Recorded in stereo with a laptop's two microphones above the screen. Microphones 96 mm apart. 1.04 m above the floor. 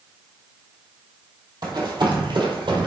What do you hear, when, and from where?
1.6 s running footsteps: 45° right (ahead or behind), 2 m; by 2.9 s 55° right (ahead or behind), 1.8 m